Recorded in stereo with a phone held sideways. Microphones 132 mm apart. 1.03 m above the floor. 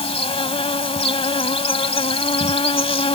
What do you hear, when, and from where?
0.0 s an insect: 50° left (ahead or behind)